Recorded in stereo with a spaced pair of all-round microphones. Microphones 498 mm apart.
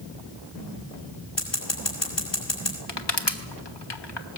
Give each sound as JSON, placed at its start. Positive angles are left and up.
{"t": 1.4, "sound": "scissors", "side_deg": 60, "distance_m": 4.5}
{"t": 2.9, "sound": "crushing", "side_deg": 55, "distance_m": 1.5}